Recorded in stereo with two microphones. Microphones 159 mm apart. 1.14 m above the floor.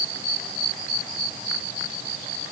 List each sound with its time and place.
Only background noise.